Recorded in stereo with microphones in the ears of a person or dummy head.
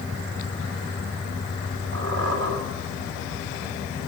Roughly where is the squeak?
Right.